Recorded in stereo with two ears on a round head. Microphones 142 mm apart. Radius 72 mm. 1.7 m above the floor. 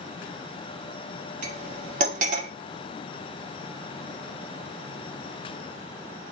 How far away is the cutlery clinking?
About 1.7 m.